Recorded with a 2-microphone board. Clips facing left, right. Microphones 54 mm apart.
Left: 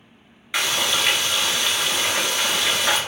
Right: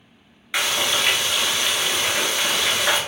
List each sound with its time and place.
0.5 s frying: 5° right (ahead or behind), 1.0 m